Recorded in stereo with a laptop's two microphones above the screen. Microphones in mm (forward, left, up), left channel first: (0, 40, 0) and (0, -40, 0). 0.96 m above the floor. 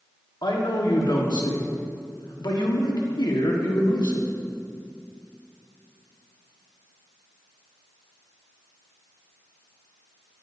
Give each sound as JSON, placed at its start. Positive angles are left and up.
{"t": 0.4, "sound": "a man speaking", "side_deg": 70, "distance_m": 1.5}